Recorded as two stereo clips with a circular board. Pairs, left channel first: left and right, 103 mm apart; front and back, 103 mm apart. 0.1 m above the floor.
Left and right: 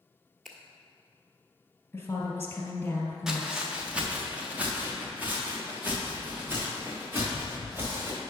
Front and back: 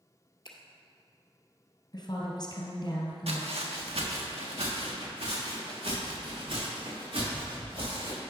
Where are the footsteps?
175° right, 1.7 m; by 8.2 s 160° right, 6.5 m.